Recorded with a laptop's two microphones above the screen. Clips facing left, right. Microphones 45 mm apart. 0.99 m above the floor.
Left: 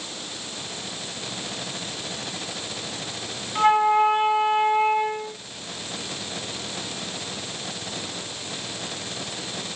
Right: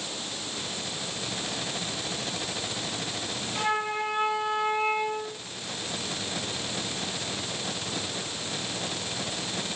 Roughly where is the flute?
Left.